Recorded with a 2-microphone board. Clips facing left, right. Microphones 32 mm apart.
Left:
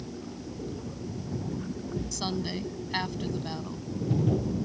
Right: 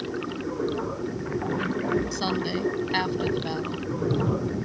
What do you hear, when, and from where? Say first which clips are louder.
0.0 s running water: right 9 dB; 80° right
2.1 s a woman speaking: right 5 dB; 20° right (ahead or behind)